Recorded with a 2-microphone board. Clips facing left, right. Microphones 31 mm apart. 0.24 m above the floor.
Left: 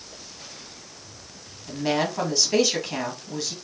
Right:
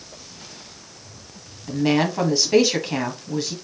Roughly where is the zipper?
No zipper in this recording.